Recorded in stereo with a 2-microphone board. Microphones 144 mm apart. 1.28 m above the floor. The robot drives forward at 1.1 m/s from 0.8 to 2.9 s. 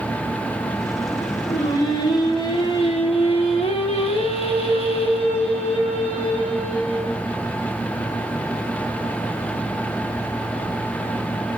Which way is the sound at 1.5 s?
25° left (ahead or behind).